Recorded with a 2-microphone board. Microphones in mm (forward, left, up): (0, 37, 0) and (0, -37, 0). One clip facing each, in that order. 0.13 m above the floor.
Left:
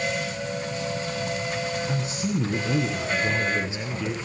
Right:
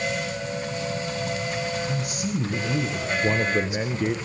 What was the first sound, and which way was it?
A woman speaking, 30° left (ahead or behind).